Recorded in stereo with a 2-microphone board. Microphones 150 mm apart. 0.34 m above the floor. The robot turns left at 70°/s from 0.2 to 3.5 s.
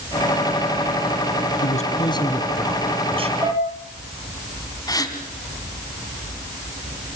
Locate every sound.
1.6 s a man speaking: 70° left, 3 m; by 3.3 s 50° right, 3 m
3.4 s dishes clattering: 25° right (ahead or behind), 3 m; by 3.6 s 20° right (ahead or behind), 3 m
4.9 s a gasp: 25° left (ahead or behind), 2.5 m